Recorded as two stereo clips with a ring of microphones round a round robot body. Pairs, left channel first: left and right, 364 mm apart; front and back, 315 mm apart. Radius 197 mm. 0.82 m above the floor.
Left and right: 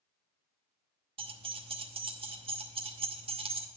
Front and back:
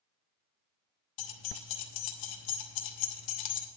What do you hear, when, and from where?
1.2 s keys jangling: 15° right, 0.9 m